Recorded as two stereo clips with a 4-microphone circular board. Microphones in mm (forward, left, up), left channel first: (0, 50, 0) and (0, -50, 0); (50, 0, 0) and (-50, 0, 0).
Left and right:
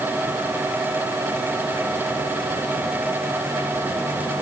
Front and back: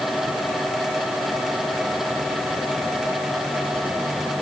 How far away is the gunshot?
I don't hear a gunshot.